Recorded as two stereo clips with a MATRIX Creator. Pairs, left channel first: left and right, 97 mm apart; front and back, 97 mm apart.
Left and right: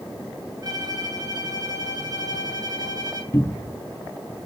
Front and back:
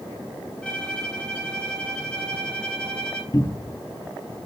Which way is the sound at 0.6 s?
75° right.